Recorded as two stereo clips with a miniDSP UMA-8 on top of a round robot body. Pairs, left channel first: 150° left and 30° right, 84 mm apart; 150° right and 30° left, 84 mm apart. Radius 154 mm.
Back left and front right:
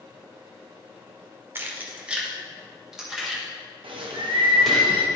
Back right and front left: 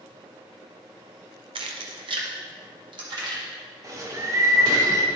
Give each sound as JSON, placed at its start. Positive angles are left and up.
{"t": 1.6, "sound": "keys jangling", "azimuth_deg": 35, "distance_m": 0.8}
{"t": 3.8, "sound": "a bird", "azimuth_deg": -20, "distance_m": 1.0}